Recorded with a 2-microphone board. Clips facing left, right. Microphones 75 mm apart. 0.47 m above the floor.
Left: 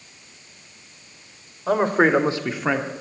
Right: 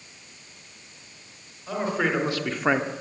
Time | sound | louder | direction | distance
1.7 | a man speaking | left 8 dB | 55° left (ahead or behind) | 1.8 m